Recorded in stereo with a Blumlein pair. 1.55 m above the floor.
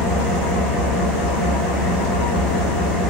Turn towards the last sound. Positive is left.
turn(degrees=20)